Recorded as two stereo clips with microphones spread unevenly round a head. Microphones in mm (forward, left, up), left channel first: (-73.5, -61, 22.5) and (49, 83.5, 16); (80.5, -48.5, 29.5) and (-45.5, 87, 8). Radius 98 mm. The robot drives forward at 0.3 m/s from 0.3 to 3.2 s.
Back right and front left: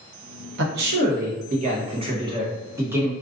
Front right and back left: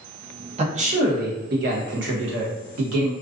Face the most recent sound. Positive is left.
turn(degrees=130)